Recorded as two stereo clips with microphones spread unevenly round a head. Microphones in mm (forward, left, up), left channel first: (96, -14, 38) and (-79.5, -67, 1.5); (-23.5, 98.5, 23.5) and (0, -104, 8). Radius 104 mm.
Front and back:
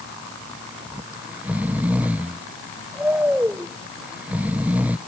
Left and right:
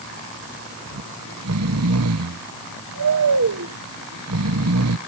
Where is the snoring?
75° right.